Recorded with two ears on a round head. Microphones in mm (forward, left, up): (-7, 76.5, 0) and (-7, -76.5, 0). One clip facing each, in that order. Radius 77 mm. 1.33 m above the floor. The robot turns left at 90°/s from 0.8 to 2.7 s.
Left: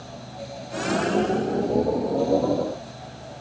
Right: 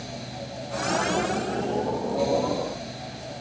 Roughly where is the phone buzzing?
I don't hear a phone buzzing.